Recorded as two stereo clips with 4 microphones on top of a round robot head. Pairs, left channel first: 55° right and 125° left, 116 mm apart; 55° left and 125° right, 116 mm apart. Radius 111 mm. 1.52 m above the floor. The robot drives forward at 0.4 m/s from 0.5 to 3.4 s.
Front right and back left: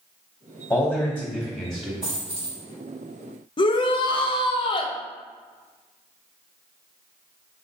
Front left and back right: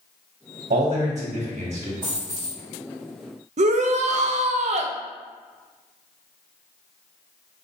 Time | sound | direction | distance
0.7 | a man speaking | 135° right | 0.8 m
2.0 | a dropped coin | 160° left | 1.3 m
3.6 | a shout | 105° right | 0.5 m